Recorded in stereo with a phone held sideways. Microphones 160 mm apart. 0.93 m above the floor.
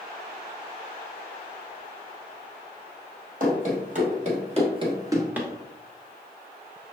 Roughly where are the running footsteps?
Right.